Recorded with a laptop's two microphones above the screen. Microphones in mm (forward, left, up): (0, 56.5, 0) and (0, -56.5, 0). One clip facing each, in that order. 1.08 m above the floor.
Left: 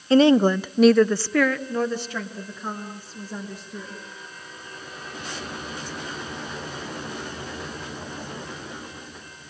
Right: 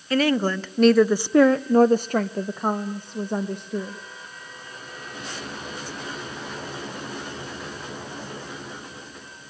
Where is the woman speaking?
25° left (ahead or behind), 0.8 m; by 4.0 s 60° right (ahead or behind), 1.6 m.